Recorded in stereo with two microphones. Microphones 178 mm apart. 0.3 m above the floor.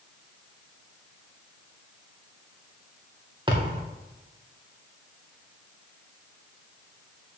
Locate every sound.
3.5 s a thud: 25° right (ahead or behind), 4 m